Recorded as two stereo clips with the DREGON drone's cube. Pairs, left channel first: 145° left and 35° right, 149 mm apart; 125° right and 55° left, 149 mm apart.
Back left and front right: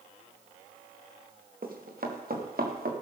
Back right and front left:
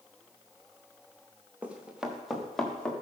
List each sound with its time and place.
1.6 s running footsteps: 25° right, 3 m; by 2.9 s 40° right, 3.5 m